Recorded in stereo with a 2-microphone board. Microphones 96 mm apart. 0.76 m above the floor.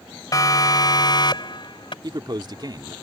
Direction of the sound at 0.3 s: 40° left (ahead or behind).